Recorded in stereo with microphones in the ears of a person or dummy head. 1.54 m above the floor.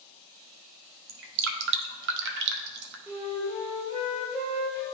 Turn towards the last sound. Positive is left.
turn(degrees=-10)  # may be behind; listen again after turning